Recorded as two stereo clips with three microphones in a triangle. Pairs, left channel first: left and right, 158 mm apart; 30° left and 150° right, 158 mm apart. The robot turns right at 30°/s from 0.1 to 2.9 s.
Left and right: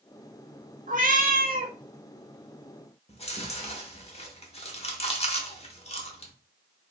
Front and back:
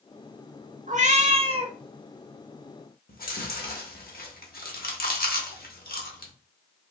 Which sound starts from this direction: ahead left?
Chewing, at 3.1 s.